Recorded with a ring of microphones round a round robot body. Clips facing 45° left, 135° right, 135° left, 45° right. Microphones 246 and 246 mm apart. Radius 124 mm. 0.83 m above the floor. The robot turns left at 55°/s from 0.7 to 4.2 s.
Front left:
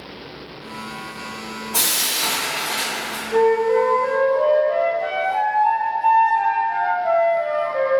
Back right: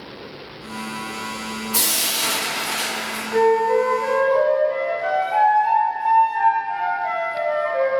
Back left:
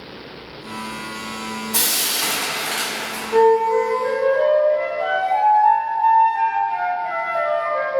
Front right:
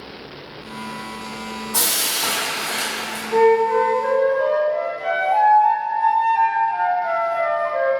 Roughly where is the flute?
Ahead.